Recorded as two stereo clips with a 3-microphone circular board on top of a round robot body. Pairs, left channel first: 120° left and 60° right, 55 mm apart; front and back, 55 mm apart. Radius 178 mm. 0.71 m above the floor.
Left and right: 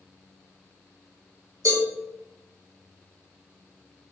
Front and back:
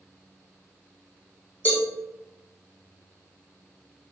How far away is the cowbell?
About 2.5 m.